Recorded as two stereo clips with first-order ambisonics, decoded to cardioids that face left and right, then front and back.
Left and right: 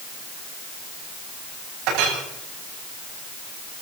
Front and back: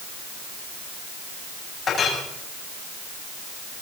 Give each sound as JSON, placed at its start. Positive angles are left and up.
{"t": 1.9, "sound": "a clink", "azimuth_deg": -70, "distance_m": 9.5}